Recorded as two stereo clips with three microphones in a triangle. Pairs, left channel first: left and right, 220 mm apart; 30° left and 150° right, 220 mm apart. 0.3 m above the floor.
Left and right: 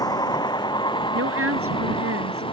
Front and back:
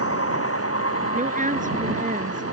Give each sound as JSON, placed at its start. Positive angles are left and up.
{"t": 0.0, "sound": "a vehicle", "azimuth_deg": 15}
{"t": 1.1, "sound": "a woman speaking", "azimuth_deg": -95}